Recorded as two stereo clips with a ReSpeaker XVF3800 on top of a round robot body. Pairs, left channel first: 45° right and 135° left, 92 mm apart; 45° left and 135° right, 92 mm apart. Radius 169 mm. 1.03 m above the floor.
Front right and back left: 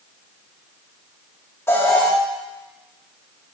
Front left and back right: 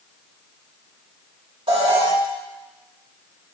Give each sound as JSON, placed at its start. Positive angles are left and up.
{"t": 1.7, "sound": "an alarm", "azimuth_deg": -105, "distance_m": 2.5}